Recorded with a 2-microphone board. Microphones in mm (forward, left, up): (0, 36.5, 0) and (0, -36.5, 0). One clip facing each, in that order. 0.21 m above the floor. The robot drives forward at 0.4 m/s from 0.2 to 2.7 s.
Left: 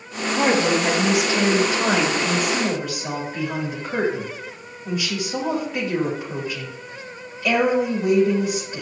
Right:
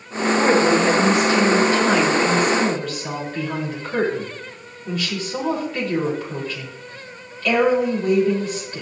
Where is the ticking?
I don't hear ticking.